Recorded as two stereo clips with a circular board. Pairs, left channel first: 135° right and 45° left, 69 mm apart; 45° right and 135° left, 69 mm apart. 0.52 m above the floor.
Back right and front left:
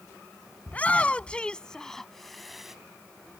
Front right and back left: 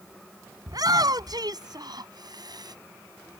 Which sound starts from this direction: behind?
A shout, at 0.7 s.